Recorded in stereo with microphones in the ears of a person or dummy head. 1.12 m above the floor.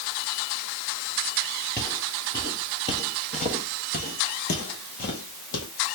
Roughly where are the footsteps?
Centre.